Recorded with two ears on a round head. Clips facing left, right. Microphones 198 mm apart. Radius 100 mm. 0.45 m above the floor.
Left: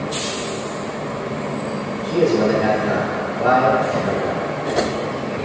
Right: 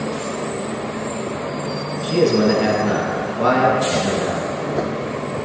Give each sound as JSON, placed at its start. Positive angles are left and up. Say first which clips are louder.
{"t": 2.0, "sound": "a man speaking", "louder": "right 1 dB", "side_deg": -50, "distance_m": 2.0}